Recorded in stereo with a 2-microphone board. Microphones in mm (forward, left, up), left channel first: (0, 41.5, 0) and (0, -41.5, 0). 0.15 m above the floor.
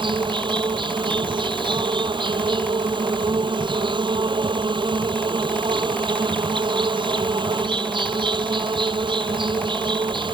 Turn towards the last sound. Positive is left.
turn(degrees=-75)  # may be behind; listen again after turning